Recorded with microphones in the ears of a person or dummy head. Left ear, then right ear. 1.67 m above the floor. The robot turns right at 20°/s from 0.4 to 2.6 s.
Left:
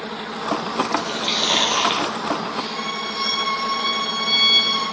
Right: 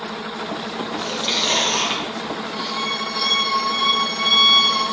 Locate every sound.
1.1 s chewing: 5° left (ahead or behind), 2.5 m; by 2.4 s 30° left (ahead or behind), 2.5 m
2.5 s a violin: 10° left (ahead or behind), 4 m